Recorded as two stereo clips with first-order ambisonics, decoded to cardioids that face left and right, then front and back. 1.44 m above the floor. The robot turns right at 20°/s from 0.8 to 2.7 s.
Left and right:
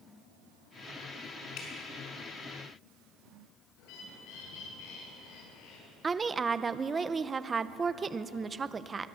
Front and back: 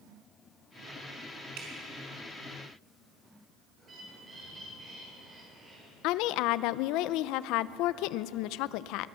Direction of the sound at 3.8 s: 110° left.